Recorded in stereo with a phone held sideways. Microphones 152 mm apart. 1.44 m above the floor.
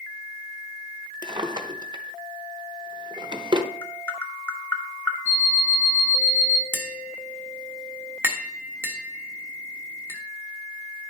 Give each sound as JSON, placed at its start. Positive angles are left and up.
{"t": 1.2, "sound": "a drawer", "side_deg": -30, "distance_m": 0.7}
{"t": 3.8, "sound": "tapping", "side_deg": 10, "distance_m": 1.1}
{"t": 5.2, "sound": "an alarm clock", "side_deg": 55, "distance_m": 5.0}
{"t": 6.7, "sound": "tapping", "side_deg": -15, "distance_m": 1.3}